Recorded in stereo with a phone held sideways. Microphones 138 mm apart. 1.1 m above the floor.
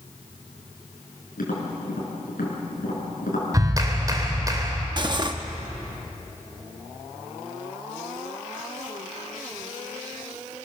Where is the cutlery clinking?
35° right (ahead or behind), 1.0 m.